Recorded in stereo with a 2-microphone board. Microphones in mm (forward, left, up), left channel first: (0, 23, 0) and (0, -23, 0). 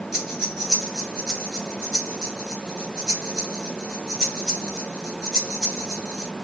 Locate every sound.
0.1 s breathing: 10° right (ahead or behind), 2.5 m